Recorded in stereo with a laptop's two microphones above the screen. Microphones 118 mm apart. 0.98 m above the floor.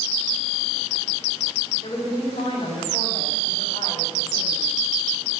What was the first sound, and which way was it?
A woman speaking, 75° left (ahead or behind).